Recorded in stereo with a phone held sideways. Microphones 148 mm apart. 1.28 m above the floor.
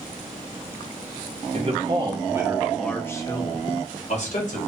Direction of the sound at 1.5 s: 45° right (ahead or behind).